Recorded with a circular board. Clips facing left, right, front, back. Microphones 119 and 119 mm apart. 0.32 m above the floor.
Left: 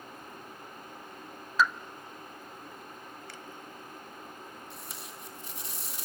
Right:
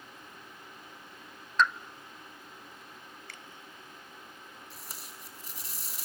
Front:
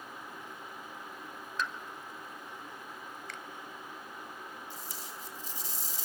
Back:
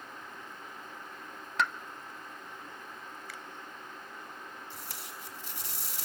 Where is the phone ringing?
I don't hear a phone ringing.